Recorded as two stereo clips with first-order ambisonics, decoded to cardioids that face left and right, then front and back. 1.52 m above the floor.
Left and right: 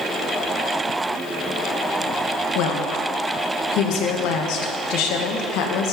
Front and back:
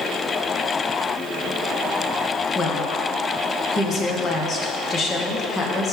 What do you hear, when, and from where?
2.5 s a woman speaking: 65° left, 0.8 m